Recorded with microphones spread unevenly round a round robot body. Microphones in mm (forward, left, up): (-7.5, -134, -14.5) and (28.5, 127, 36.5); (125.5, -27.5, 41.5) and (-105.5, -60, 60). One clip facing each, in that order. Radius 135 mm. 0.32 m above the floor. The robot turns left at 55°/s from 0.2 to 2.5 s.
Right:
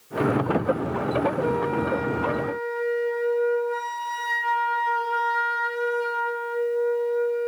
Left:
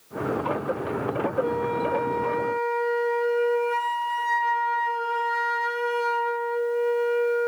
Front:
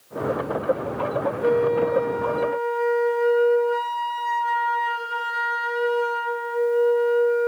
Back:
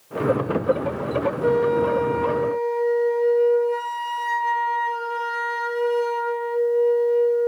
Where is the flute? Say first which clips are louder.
Right 2 dB, even; 165° right, 2.5 m; by 7.5 s 135° left, 2.5 m.